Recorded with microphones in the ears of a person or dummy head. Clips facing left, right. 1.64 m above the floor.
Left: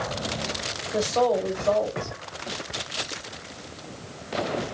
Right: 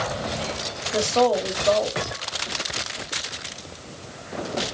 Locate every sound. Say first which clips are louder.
0.9 s a woman speaking: right 2 dB; 5° right (ahead or behind), 1.0 m